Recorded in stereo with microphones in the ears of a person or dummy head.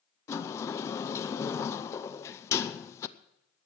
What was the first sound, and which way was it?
A sliding door, 25° left (ahead or behind).